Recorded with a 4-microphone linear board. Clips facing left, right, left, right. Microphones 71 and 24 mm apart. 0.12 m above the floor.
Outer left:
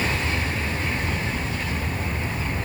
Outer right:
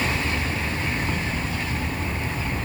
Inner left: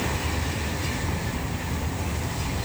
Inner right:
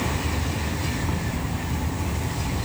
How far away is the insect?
About 5.5 m.